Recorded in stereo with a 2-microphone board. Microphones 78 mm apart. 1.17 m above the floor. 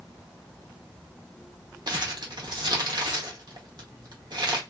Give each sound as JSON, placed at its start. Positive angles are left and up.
{"t": 1.9, "sound": "crumpling", "side_deg": -70, "distance_m": 0.8}